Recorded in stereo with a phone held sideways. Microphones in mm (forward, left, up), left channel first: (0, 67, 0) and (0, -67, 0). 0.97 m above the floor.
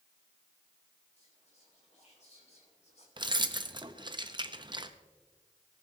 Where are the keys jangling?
35° right (ahead or behind), 0.6 m.